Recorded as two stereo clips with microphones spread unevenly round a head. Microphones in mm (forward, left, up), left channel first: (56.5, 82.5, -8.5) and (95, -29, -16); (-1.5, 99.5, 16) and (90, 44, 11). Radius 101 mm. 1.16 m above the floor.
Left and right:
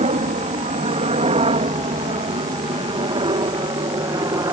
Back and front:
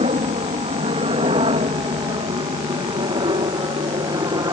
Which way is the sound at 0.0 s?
70° right.